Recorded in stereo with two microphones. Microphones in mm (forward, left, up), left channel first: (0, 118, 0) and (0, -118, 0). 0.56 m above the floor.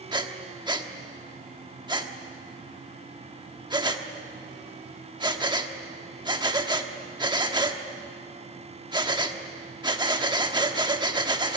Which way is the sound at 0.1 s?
15° right (ahead or behind).